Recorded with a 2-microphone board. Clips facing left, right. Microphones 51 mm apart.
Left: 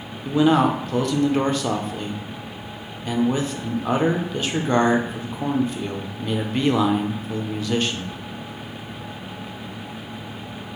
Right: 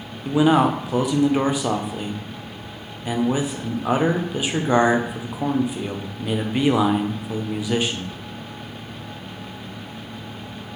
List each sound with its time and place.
0.2 s a man speaking: 10° right (ahead or behind), 0.6 m